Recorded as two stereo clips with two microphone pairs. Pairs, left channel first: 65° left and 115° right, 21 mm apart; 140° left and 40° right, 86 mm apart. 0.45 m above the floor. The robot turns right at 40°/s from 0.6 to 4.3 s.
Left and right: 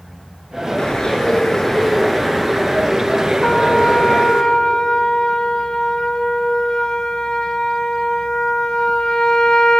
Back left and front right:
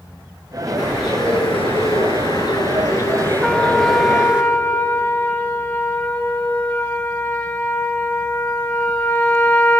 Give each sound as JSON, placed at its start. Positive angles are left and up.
{"t": 0.8, "sound": "a bird", "azimuth_deg": 105, "distance_m": 4.0}
{"t": 3.4, "sound": "a trumpet", "azimuth_deg": 50, "distance_m": 1.9}